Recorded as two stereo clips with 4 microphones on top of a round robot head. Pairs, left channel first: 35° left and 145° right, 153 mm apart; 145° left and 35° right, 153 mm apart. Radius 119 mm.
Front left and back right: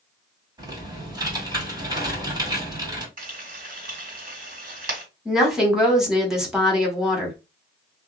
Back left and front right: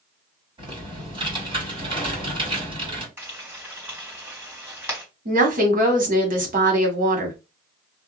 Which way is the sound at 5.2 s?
55° right.